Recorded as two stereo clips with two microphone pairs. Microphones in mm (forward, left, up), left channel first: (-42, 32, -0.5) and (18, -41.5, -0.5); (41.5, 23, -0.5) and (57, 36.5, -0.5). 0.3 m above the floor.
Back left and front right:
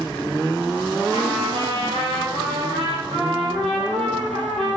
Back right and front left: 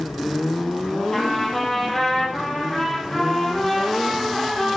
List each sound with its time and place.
1.1 s a trumpet: 55° right, 5 m